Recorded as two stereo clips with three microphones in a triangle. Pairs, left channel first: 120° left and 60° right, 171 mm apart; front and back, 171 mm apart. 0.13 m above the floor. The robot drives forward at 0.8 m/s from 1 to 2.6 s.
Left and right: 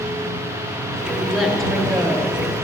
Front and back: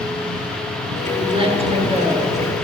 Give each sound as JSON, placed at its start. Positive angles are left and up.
{"t": 1.1, "sound": "a woman speaking", "azimuth_deg": -140, "distance_m": 1.3}